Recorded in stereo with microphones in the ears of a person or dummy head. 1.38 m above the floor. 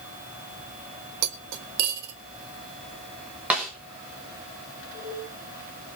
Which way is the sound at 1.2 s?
65° right (ahead or behind).